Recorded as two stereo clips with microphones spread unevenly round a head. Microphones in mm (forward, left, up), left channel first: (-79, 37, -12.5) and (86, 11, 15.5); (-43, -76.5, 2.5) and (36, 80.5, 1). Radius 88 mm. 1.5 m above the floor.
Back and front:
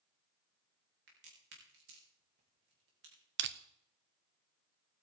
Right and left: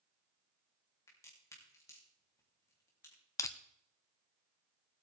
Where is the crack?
45° right, 3.5 m.